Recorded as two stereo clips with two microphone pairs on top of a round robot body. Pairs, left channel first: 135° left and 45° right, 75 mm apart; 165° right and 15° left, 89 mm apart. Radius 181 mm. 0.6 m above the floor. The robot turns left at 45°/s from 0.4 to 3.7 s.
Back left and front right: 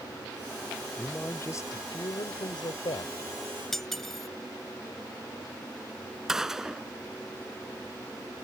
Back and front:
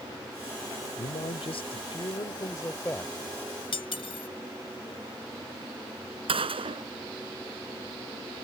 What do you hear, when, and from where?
1.0 s a man speaking: 150° right; by 3.1 s 110° left
3.7 s cutlery clinking: 140° right
6.3 s a gunshot: 40° left